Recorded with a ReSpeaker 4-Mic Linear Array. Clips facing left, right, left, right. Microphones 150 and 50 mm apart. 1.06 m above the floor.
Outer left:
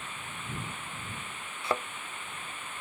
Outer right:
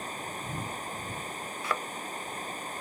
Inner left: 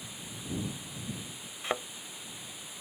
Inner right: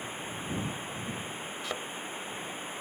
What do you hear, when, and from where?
0.0 s running water: 40° right (ahead or behind)
1.6 s a thud: 25° left (ahead or behind)